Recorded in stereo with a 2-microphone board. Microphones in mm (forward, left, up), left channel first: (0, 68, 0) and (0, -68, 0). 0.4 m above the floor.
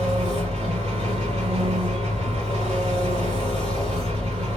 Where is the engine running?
50° right (ahead or behind), 2 m.